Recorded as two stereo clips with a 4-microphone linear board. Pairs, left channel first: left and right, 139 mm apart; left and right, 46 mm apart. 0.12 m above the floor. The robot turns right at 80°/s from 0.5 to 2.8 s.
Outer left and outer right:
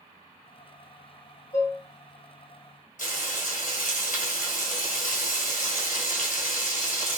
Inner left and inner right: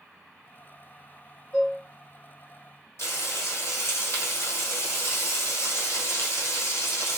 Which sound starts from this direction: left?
Frying, at 3.0 s.